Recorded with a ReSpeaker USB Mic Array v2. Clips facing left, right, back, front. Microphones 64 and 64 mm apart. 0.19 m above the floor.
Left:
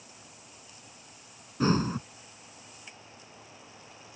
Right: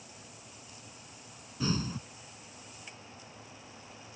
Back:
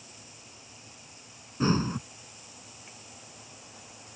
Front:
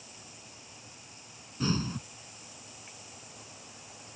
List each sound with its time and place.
1.6 s breathing: 130° left